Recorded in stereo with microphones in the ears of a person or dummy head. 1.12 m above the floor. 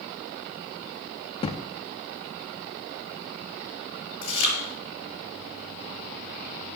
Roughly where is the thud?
Left.